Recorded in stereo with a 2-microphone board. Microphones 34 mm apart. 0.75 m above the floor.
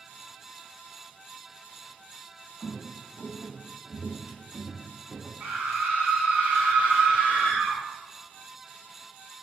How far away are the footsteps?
About 1.9 m.